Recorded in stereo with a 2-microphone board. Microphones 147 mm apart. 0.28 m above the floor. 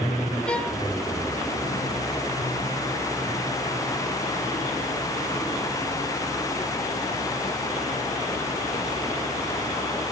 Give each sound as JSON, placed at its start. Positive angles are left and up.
{"t": 0.5, "sound": "a violin", "side_deg": 5, "distance_m": 1.6}